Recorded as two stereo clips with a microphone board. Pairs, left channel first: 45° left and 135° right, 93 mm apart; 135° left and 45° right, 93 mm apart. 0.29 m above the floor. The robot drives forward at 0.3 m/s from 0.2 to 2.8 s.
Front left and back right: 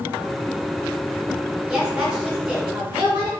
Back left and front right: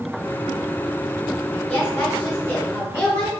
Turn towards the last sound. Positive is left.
turn(degrees=170)